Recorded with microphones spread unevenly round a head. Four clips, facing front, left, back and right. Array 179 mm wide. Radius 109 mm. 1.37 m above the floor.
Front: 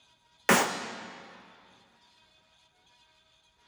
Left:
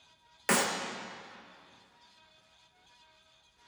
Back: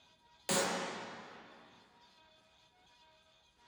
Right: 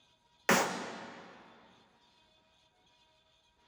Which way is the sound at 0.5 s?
5° right.